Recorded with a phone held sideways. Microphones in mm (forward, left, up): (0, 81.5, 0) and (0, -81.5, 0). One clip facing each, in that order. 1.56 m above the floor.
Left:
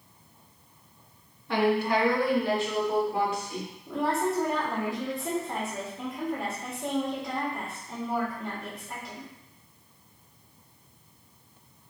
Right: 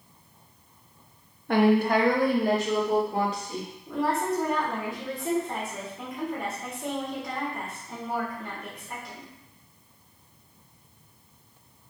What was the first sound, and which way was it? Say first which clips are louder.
A woman speaking: right 4 dB; 55° right (ahead or behind).